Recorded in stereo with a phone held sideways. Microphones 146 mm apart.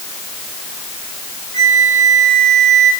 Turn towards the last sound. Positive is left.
turn(degrees=-65)  # may be behind; listen again after turning